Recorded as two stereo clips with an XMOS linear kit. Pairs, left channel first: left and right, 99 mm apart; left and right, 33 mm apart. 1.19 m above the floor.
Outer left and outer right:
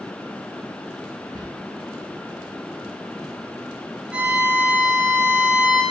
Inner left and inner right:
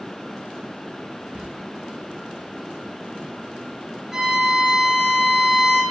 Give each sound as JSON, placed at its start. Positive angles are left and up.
{"t": 1.3, "sound": "whispering", "side_deg": -40, "distance_m": 1.4}
{"t": 4.1, "sound": "a violin", "side_deg": -10, "distance_m": 3.0}